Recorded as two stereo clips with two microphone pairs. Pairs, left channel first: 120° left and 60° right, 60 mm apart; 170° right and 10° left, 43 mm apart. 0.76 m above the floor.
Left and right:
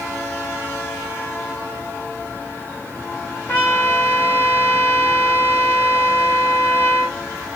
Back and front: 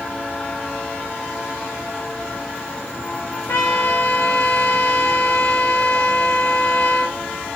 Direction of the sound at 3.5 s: 175° left.